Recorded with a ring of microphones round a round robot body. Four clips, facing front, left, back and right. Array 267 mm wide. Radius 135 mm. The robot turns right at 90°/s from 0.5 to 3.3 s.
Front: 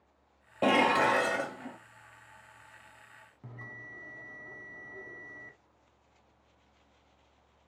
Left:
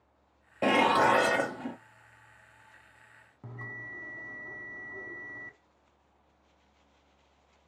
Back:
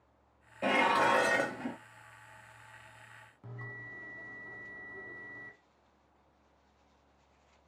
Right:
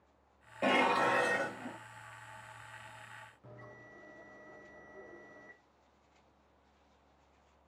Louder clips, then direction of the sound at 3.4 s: Left 8 dB, even; 75° left.